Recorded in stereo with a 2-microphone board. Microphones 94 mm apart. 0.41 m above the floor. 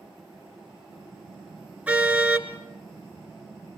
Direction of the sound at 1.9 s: 15° right (ahead or behind).